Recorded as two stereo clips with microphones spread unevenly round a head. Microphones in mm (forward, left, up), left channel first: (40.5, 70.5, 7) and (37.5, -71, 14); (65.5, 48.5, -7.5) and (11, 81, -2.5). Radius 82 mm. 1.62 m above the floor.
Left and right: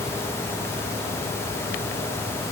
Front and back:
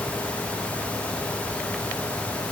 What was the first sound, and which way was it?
Only background noise.